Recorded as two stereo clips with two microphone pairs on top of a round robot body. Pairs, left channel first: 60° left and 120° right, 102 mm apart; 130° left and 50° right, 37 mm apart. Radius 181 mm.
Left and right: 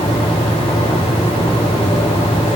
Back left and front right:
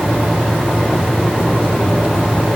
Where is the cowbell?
No cowbell in this recording.